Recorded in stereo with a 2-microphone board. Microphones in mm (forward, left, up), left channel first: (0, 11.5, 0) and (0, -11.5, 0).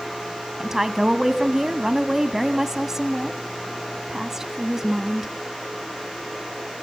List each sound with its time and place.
0.6 s a woman speaking: 20° right (ahead or behind), 1.1 m